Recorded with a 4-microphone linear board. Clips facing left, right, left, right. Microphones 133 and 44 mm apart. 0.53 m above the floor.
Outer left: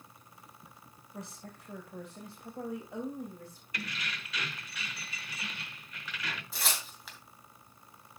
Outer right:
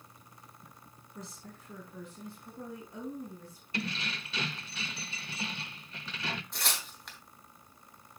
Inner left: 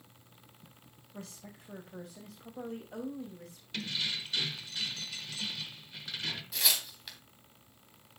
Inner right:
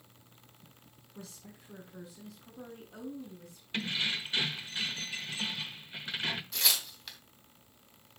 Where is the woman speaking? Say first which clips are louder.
Outer left 2 dB, inner left 2 dB; 60° left (ahead or behind), 3 m; by 3.6 s 75° left (ahead or behind), 3 m.